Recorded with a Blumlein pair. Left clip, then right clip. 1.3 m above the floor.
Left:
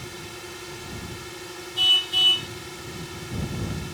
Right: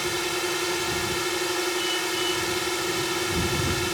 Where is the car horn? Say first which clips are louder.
Left 7 dB; 35° left.